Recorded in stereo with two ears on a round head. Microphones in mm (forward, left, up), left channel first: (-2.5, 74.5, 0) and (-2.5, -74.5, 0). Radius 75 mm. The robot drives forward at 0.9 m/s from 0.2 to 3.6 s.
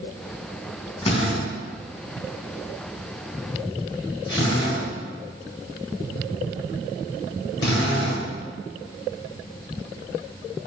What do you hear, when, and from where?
1.0 s a drill: 35° left (ahead or behind), 4.5 m; by 8.3 s 25° left (ahead or behind), 6.5 m